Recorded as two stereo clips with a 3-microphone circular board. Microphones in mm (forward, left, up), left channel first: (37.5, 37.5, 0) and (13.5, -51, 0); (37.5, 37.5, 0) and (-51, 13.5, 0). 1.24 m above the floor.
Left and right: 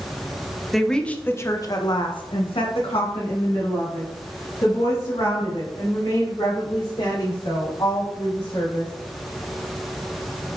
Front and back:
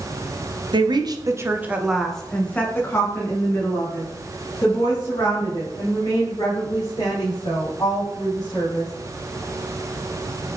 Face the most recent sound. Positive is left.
turn(degrees=55)